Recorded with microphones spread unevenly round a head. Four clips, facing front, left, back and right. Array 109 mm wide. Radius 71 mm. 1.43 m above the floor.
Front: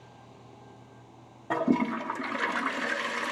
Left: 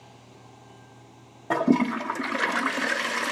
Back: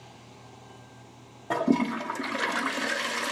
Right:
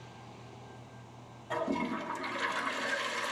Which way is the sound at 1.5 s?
105° left.